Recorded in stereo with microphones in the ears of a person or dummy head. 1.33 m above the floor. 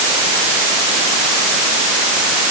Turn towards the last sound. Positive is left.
No sound to turn to.